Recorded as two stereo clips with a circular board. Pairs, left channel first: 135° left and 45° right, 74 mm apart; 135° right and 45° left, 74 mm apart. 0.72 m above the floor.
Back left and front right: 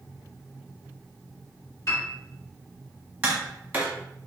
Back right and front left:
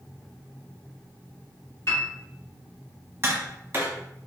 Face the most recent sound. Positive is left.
turn(degrees=15)